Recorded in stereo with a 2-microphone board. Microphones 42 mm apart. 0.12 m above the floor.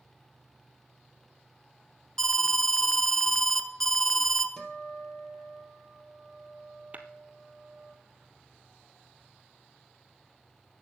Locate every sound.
2.2 s an alarm: 10° left (ahead or behind), 1.0 m
4.6 s a guitar: 15° left (ahead or behind), 3 m
6.9 s tapping: 35° right (ahead or behind), 1.1 m